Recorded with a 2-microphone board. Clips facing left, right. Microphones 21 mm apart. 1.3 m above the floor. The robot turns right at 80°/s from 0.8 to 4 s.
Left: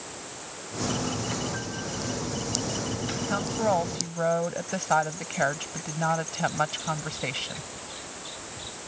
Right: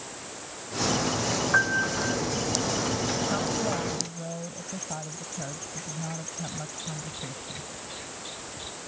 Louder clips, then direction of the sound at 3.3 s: Left 2 dB; 15° left.